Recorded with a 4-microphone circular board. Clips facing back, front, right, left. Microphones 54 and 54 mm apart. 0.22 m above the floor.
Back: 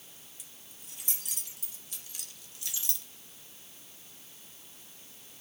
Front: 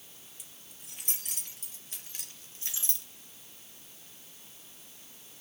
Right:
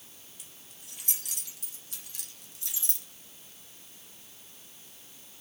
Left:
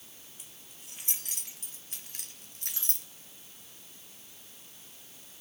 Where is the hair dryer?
I don't hear a hair dryer.